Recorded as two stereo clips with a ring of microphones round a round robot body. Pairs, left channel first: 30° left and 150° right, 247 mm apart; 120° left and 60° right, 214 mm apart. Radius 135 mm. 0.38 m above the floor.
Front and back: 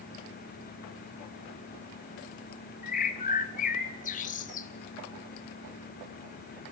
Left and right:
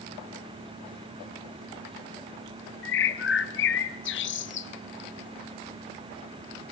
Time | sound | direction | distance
2.8 | a bird | 90° left | 1.0 m